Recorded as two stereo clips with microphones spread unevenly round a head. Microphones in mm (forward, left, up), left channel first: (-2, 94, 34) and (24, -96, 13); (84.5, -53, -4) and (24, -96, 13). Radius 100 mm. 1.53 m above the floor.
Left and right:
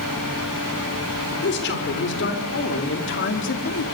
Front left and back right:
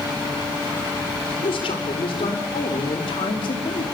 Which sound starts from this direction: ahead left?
A man speaking, at 1.4 s.